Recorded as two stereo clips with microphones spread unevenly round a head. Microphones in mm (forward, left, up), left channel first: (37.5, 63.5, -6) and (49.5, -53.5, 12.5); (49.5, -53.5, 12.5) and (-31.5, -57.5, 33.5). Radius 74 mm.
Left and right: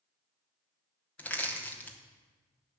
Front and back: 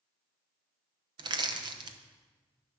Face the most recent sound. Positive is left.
turn(degrees=160)